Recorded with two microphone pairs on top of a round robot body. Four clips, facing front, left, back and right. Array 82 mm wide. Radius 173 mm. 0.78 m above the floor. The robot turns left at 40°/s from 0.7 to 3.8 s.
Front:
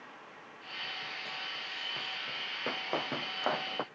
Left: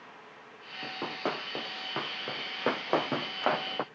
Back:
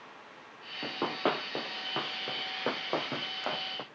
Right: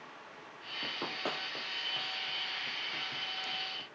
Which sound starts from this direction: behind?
Running footsteps, at 0.8 s.